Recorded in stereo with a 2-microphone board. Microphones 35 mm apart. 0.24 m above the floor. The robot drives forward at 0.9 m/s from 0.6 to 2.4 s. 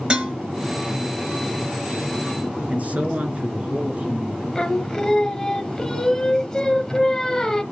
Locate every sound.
0.1 s dishes clattering: 25° right (ahead or behind), 3 m
2.7 s a man speaking: 40° right (ahead or behind), 3 m
4.5 s singing: 20° left (ahead or behind), 1.1 m